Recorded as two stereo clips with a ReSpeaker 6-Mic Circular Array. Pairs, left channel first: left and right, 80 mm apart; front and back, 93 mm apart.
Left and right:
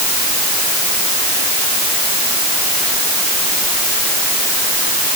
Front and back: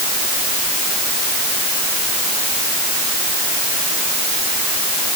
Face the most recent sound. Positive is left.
No sound to turn to.